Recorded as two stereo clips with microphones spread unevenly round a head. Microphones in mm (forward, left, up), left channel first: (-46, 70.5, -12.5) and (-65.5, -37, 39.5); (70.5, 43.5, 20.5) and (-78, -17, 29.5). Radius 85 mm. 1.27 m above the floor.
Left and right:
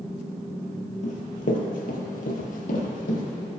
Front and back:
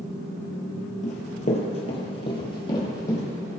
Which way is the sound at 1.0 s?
35° left.